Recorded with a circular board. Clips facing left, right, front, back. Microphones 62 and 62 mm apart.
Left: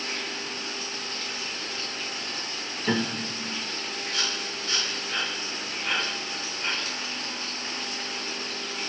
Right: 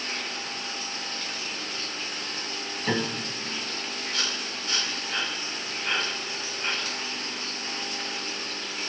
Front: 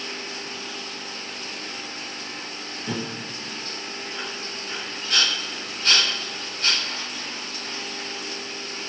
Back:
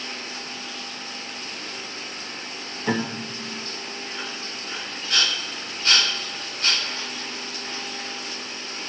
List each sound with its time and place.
2.9 s a piano: 170° right, 2 m